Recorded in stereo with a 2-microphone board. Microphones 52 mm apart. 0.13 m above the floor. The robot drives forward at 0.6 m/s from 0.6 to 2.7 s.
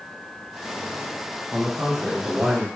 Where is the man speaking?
10° left (ahead or behind), 1.7 m; by 2.7 s 5° left (ahead or behind), 2.5 m.